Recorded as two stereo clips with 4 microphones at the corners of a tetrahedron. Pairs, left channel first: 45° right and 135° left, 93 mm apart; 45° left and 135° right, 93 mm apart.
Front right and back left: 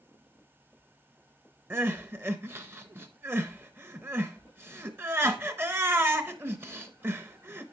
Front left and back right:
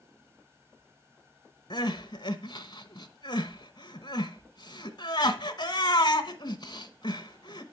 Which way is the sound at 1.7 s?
75° left.